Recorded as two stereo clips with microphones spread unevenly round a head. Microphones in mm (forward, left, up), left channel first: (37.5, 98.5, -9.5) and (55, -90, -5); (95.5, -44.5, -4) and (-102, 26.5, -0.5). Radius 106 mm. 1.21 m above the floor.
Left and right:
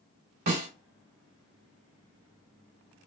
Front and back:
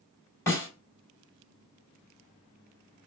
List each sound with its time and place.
0.5 s a snare drum: 100° right, 3 m